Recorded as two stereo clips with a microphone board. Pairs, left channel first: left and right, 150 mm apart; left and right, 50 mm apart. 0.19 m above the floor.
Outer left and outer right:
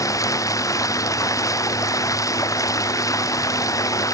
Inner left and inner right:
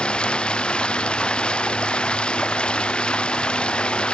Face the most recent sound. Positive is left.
turn(degrees=20)  # may be behind; listen again after turning